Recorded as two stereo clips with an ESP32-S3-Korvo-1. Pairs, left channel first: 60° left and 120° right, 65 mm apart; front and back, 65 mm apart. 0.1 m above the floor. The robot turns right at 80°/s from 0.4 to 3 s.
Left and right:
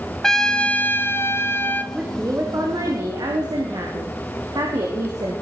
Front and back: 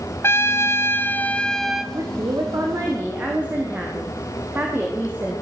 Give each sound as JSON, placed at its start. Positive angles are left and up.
{"t": 0.2, "sound": "a trumpet", "azimuth_deg": -15, "distance_m": 2.0}
{"t": 1.9, "sound": "a woman speaking", "azimuth_deg": 160, "distance_m": 6.5}